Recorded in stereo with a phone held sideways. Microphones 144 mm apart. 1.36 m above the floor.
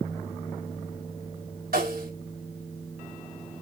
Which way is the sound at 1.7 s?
85° right.